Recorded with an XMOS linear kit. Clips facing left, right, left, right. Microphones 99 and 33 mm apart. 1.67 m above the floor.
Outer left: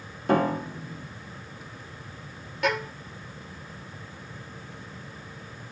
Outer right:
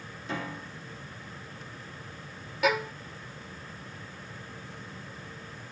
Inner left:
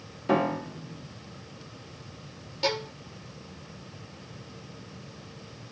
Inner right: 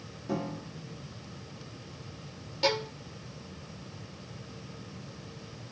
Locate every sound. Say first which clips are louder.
0.3 s a piano: outer left 14 dB, inner left 9 dB; 60° left (ahead or behind)
2.6 s a violin: even, even; 5° right (ahead or behind)